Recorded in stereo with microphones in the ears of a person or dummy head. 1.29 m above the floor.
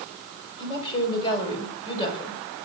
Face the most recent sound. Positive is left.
turn(degrees=30)  # may be behind; listen again after turning